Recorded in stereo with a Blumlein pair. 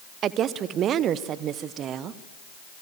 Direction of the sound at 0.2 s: 30° right.